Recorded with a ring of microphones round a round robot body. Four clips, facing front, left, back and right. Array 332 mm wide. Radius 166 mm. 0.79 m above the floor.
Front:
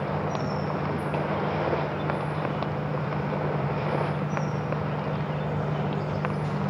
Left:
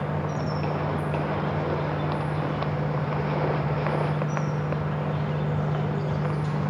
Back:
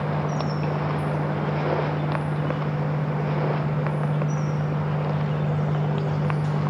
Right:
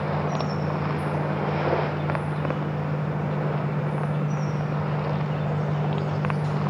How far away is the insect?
About 3 m.